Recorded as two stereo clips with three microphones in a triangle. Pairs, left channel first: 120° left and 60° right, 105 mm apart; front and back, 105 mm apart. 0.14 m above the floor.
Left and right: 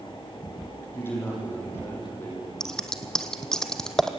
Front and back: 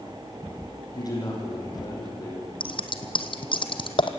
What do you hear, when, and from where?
0.9 s a man speaking: 50° left, 7 m
2.6 s scissors: 35° left, 1.3 m